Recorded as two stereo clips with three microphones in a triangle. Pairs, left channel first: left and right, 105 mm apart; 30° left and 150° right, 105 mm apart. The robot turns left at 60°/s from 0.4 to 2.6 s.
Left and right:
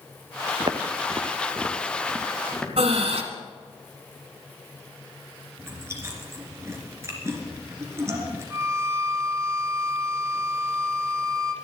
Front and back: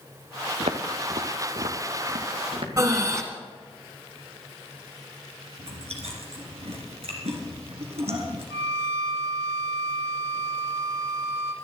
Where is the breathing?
90° right, 1.8 m.